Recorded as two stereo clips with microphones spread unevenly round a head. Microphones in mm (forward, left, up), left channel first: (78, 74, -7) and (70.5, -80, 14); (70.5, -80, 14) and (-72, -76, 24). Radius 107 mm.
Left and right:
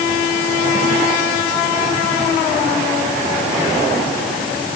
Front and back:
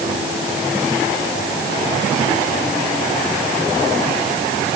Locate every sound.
Only background noise.